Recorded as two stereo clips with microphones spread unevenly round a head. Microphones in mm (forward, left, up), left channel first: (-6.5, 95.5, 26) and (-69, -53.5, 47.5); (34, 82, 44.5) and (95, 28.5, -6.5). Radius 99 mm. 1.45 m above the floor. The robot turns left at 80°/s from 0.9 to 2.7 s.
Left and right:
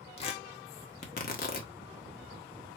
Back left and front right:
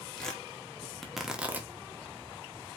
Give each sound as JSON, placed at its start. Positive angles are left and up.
{"t": 0.2, "sound": "tearing paper", "azimuth_deg": 115, "distance_m": 1.2}